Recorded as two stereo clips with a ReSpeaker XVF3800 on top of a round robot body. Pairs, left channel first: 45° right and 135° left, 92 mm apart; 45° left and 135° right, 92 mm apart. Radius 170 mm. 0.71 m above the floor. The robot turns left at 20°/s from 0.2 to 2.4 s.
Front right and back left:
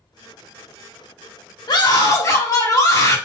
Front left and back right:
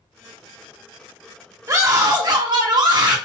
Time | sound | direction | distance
1.7 | a scream | 85° right | 1.5 m